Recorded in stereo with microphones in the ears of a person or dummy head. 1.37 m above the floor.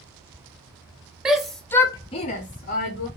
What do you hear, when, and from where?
1.2 s a shout: 5° right (ahead or behind), 0.7 m; by 3.1 s 45° left (ahead or behind), 0.7 m